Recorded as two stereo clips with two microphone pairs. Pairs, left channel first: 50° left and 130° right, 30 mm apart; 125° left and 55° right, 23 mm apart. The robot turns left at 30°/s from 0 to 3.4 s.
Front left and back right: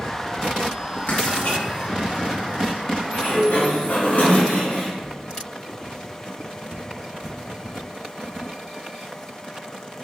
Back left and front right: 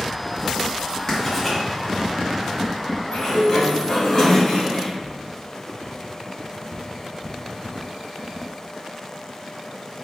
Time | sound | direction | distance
1.1 | writing | 60° left | 1.2 m
3.1 | a sliding door | 90° left | 1.8 m
5.0 | footsteps | 150° left | 1.6 m